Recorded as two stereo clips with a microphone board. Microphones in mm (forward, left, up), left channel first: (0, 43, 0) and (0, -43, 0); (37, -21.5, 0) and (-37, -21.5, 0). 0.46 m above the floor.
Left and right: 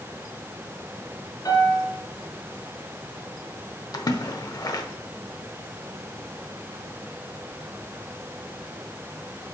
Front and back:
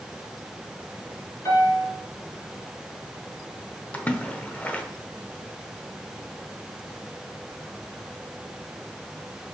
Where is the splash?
65° left, 0.7 m.